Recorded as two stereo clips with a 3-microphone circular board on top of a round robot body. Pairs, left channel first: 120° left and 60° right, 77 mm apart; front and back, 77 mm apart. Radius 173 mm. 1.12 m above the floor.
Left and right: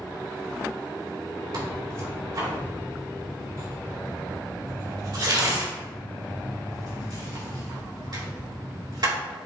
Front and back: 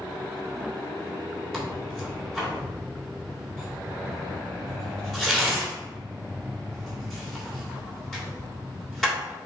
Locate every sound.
1.5 s tearing paper: 85° right, 3 m